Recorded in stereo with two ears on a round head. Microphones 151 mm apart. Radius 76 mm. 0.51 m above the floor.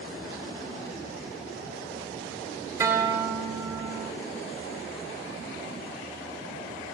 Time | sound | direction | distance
2.8 | a guitar | 15° right (ahead or behind) | 0.6 m